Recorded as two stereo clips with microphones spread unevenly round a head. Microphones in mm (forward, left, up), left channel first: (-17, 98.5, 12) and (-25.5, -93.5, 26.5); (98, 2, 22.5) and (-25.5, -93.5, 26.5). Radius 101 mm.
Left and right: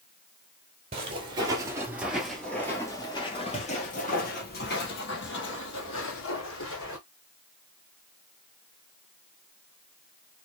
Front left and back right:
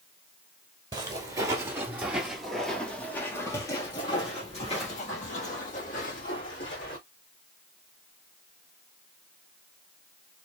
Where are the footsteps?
110° right, 1.5 m; by 7.0 s 80° left, 3 m.